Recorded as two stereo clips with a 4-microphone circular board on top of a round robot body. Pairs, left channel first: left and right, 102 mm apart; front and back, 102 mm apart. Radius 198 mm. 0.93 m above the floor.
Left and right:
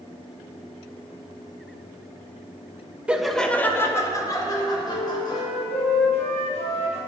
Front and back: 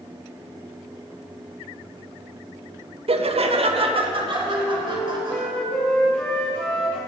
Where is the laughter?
170° right, 1.1 m; by 5.4 s 135° left, 3.5 m.